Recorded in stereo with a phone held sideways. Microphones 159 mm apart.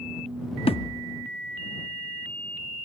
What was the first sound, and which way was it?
A thud, 35° left (ahead or behind).